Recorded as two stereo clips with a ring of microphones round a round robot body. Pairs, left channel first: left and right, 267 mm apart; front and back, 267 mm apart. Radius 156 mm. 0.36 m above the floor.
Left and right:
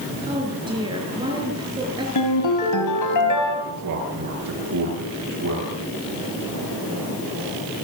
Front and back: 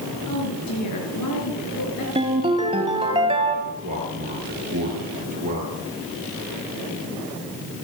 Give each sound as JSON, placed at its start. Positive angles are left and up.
{"t": 0.3, "sound": "a woman speaking", "azimuth_deg": -15, "distance_m": 6.5}
{"t": 2.1, "sound": "a ringtone", "azimuth_deg": 110, "distance_m": 4.5}
{"t": 3.7, "sound": "a man speaking", "azimuth_deg": -115, "distance_m": 9.5}